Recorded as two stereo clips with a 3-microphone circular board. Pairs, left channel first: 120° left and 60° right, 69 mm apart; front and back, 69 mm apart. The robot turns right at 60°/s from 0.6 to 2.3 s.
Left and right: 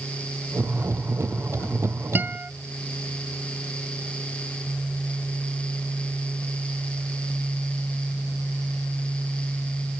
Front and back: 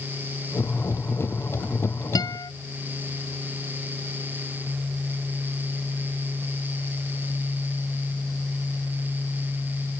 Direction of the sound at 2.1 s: Straight ahead.